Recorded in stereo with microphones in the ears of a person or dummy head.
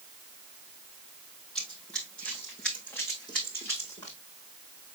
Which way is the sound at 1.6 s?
10° left (ahead or behind).